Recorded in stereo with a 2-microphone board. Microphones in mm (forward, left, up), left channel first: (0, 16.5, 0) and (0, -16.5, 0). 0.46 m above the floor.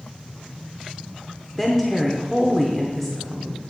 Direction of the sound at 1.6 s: 10° left (ahead or behind).